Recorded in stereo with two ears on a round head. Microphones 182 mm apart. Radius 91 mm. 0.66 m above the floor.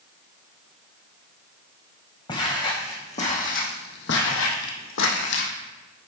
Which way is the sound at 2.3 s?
20° left (ahead or behind).